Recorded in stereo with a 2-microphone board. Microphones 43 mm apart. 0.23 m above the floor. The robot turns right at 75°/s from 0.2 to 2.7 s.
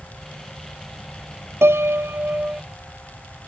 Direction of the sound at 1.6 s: 100° right.